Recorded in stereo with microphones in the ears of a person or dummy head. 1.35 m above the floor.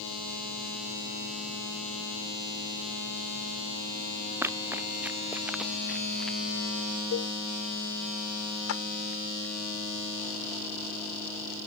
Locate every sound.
4.4 s running footsteps: 10° right (ahead or behind); by 6.4 s centre (ahead or behind)
7.1 s a cowbell: 80° left
8.7 s a clap: 80° left